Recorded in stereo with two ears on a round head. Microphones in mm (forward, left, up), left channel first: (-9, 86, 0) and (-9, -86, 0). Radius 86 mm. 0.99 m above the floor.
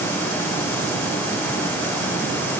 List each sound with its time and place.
Only background noise.